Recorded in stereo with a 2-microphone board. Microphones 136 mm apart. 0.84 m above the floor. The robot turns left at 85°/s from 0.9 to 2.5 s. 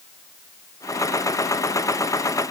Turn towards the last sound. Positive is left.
No sound to turn to.